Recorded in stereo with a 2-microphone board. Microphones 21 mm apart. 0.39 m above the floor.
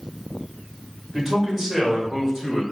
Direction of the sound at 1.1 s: 25° right (ahead or behind).